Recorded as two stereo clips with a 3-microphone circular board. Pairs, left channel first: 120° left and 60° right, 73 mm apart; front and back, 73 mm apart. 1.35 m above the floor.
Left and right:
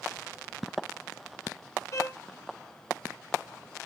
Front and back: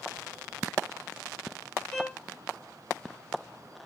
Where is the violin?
80° left, 3 m.